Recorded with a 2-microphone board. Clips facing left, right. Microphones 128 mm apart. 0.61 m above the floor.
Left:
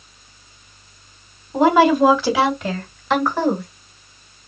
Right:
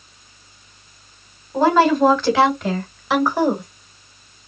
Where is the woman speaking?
15° left (ahead or behind), 3.5 m; by 3.7 s 20° right (ahead or behind), 2 m.